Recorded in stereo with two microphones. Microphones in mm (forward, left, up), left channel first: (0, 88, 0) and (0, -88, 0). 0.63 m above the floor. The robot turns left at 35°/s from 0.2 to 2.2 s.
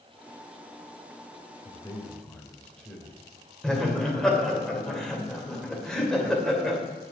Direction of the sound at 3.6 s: 5° left (ahead or behind).